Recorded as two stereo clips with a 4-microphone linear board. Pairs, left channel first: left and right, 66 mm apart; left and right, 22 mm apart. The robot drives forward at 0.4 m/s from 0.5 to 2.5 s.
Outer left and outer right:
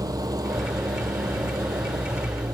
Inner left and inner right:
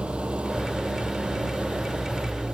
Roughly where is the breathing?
I don't hear breathing.